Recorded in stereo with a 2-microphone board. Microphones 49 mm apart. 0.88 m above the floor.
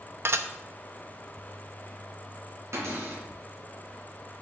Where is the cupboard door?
75° right (ahead or behind), 3.5 m.